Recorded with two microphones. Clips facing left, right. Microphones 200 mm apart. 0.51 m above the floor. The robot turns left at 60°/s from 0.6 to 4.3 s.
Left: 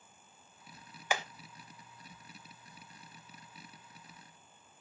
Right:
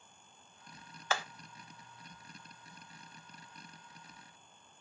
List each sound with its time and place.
1.1 s hammering: 15° left (ahead or behind), 0.6 m; by 1.2 s 25° left (ahead or behind), 0.6 m